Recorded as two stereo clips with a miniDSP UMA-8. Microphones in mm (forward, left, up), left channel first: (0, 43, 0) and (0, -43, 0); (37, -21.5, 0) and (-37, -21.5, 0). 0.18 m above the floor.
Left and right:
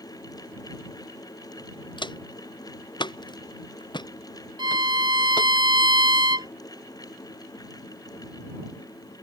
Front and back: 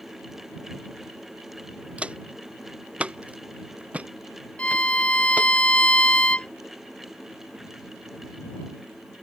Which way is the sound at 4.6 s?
75° right.